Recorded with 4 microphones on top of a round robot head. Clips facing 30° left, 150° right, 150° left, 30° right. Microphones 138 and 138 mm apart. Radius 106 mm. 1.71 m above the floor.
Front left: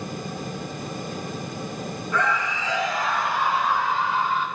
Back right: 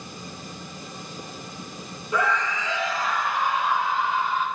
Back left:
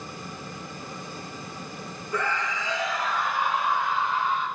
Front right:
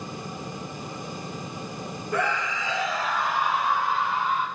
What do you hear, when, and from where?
2.1 s a scream: 75° right, 1.1 m; by 4.5 s 5° left, 3.5 m